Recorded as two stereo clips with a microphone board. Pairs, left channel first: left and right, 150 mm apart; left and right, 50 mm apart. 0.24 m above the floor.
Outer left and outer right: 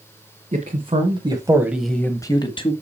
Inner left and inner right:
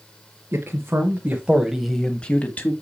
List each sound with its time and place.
0.5 s a man speaking: 45° right (ahead or behind), 2 m; by 2.7 s 35° left (ahead or behind), 1.6 m